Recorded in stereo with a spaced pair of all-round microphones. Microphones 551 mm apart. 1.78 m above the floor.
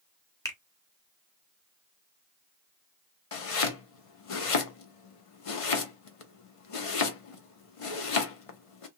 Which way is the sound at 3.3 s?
70° left (ahead or behind).